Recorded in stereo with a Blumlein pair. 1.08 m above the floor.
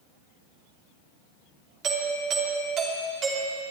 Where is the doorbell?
30° right, 3 m.